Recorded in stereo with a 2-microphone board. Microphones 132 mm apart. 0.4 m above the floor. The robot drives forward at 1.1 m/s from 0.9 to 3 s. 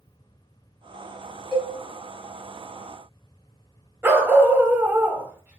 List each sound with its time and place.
1.5 s a cowbell: 10° left (ahead or behind), 2.5 m
4.0 s a dog barking: 15° right (ahead or behind), 0.9 m